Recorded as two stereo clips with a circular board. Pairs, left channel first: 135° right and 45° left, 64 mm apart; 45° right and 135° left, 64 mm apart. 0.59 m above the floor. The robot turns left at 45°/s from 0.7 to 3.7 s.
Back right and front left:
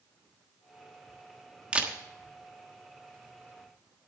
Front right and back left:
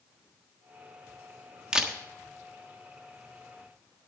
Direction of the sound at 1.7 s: 80° left.